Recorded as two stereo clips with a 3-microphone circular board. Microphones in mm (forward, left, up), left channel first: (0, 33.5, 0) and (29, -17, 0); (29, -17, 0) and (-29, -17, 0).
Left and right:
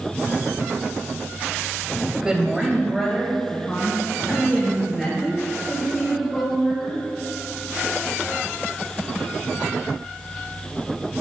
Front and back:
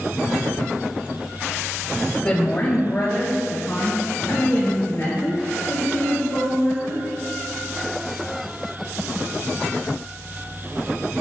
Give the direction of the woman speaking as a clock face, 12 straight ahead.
1 o'clock.